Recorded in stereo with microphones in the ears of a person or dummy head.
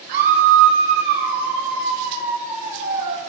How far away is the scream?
About 3 m.